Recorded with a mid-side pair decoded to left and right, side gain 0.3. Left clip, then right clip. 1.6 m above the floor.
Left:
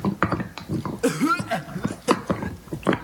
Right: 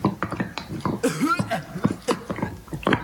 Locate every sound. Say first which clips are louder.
1.0 s a cough: left 1 dB; 5° left, 2 m